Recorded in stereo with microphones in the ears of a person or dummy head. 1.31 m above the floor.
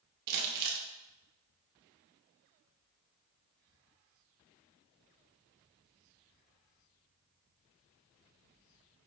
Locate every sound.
0.3 s crumpling: 50° right (ahead or behind), 0.8 m